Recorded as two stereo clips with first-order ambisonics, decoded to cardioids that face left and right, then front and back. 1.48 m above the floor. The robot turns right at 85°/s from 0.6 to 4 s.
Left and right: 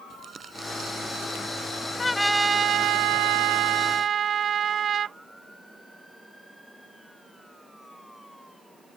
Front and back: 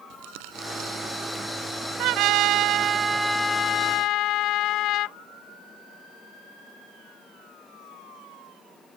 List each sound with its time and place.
0.1 s crumpling: 160° right; by 3.0 s 40° left
2.0 s a trumpet: 160° left; by 5.2 s 30° right